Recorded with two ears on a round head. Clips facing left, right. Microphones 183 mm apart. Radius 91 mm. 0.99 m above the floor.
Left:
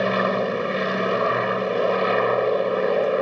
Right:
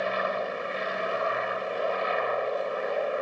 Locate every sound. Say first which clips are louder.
0.0 s an aircraft: left 7 dB; 65° left (ahead or behind)